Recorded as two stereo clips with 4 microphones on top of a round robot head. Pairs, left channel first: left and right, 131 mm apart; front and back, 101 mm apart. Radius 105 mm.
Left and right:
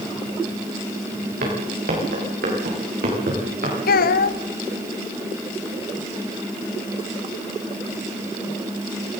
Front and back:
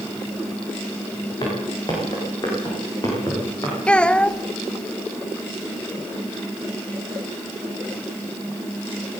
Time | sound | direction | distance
1.4 | footsteps | 65° right | 8 m
3.9 | a child speaking | 80° left | 1.1 m